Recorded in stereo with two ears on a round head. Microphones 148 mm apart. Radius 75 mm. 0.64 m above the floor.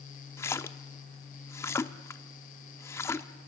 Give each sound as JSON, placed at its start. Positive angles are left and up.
{"t": 0.4, "sound": "a splash", "side_deg": 15, "distance_m": 0.9}